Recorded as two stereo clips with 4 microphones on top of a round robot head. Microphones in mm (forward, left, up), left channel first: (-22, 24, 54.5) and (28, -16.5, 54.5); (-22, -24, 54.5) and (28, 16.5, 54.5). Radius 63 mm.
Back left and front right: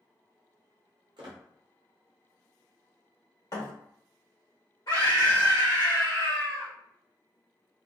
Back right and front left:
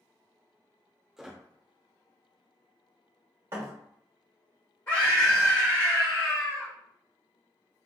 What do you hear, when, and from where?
1.2 s a squeak: 40° right, 0.7 m
3.5 s a thud: 100° left, 1.4 m
4.9 s a scream: 160° left, 1.5 m